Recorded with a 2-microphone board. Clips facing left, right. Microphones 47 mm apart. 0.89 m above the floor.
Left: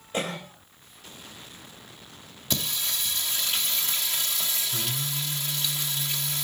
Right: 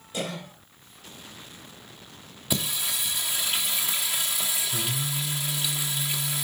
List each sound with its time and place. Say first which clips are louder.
0.1 s a cough: left 2 dB; 50° left (ahead or behind), 4 m
2.5 s singing: right 1 dB; 10° right (ahead or behind), 1.3 m